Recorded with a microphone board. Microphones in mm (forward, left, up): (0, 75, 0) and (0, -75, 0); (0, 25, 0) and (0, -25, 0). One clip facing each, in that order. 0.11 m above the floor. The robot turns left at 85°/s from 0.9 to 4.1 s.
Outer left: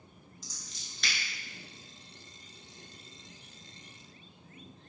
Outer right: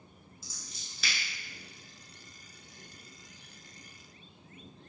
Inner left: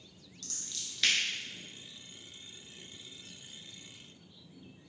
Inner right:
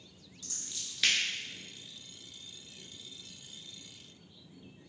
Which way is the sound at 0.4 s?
10° right (ahead or behind).